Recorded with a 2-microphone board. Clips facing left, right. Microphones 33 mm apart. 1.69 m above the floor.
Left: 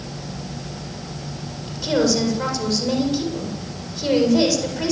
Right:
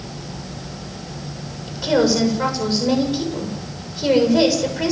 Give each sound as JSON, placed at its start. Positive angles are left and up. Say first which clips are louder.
{"t": 1.7, "sound": "a woman speaking", "louder": "right 2 dB", "side_deg": -15, "distance_m": 8.0}